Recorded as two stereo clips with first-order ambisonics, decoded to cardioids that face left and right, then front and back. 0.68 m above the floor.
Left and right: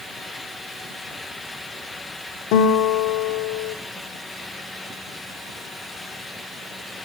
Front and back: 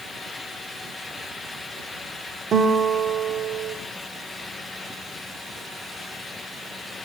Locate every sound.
2.5 s a guitar: 115° left, 1.1 m